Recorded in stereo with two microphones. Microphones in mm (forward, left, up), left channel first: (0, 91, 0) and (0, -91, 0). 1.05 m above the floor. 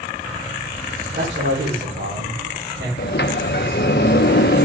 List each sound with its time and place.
1.1 s a man speaking: 80° right, 3.5 m
3.0 s a sliding door: 70° left (ahead or behind), 0.5 m